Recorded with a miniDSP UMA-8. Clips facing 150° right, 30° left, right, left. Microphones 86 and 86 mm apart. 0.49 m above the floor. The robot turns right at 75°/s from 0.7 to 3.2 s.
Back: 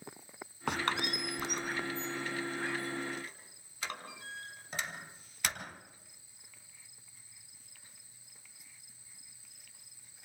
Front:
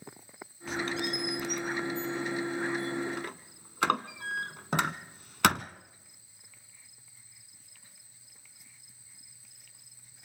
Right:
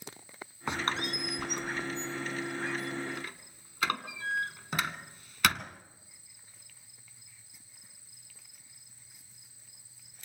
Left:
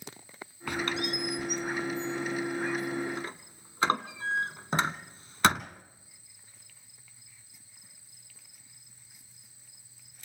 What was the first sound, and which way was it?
A squeak, 155° right.